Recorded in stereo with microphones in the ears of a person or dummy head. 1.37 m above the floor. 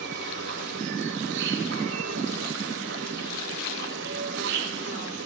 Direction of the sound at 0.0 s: 70° right (ahead or behind).